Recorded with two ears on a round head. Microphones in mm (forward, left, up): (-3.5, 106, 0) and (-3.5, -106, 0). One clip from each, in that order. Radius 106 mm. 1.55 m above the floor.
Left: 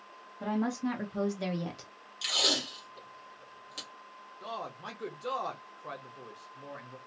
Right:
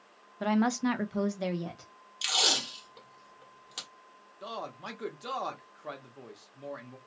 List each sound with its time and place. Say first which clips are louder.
0.4 s a woman speaking: right 5 dB; 55° right (ahead or behind), 0.7 m; by 1.9 s 35° left (ahead or behind), 0.7 m
2.2 s tape being pulled: right 1 dB; 15° right (ahead or behind), 1.2 m
4.4 s a man speaking: right 1 dB; 10° right (ahead or behind), 0.8 m